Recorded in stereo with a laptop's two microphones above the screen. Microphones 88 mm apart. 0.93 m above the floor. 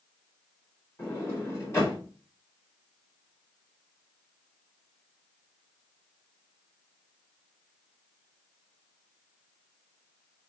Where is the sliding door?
30° left (ahead or behind), 2.5 m.